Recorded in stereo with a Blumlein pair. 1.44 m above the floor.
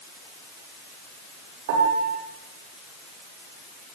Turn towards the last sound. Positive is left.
turn(degrees=-50)